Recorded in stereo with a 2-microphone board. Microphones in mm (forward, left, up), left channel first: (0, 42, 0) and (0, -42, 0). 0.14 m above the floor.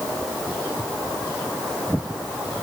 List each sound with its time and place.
Only background noise.